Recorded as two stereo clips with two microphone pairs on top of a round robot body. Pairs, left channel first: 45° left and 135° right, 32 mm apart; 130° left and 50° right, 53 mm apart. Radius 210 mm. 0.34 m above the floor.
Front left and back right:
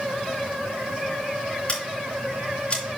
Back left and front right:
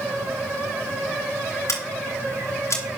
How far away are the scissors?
About 3.5 m.